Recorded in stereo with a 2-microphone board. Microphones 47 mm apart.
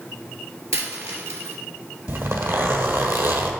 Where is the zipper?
60° right (ahead or behind), 1.3 m.